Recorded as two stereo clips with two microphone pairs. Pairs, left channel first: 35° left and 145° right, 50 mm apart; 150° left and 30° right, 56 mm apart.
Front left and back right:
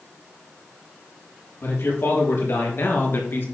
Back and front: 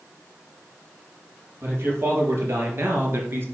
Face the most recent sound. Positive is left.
turn(degrees=5)